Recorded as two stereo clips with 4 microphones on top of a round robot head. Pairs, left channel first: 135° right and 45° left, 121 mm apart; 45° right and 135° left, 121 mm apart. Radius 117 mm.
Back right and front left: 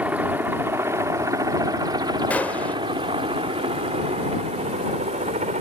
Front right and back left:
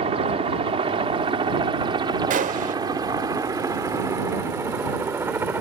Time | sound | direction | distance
0.0 | a helicopter | 120° left | ?
2.3 | a gunshot | 145° left | ?